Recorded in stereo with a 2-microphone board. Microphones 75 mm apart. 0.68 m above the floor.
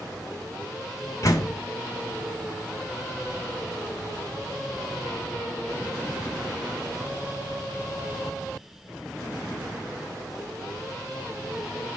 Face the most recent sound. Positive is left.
turn(degrees=45)  # may be behind; listen again after turning